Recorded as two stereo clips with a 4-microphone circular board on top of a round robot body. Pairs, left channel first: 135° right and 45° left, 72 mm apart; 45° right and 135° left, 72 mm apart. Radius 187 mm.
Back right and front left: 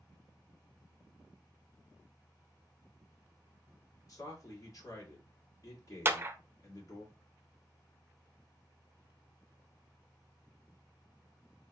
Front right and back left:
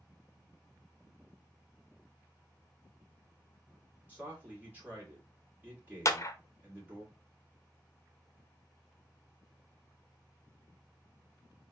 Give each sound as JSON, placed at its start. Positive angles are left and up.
{"t": 4.1, "sound": "a man speaking", "azimuth_deg": -165, "distance_m": 2.5}
{"t": 6.0, "sound": "a clap", "azimuth_deg": -10, "distance_m": 0.8}